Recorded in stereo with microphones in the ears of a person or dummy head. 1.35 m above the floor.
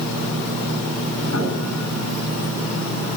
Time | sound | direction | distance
1.2 | a piano | 75° left (ahead or behind) | 9.5 m